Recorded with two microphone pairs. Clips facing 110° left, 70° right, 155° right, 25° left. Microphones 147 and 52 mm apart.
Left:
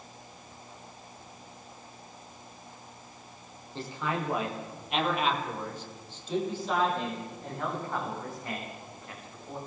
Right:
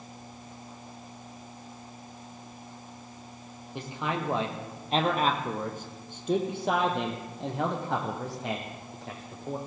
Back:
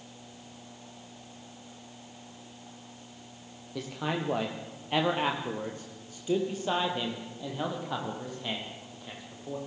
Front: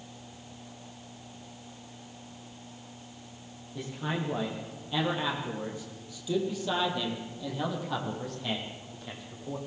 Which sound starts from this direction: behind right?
A man speaking, at 3.8 s.